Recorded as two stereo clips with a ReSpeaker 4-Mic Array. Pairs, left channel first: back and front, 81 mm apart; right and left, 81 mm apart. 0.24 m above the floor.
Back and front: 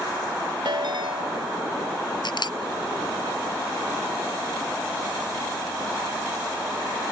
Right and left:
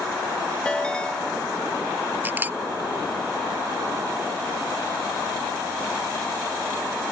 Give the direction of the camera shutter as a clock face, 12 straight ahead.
7 o'clock.